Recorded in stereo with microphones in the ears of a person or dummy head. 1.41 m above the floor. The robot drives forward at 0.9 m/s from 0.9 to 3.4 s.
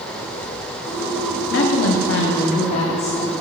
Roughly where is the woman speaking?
Left.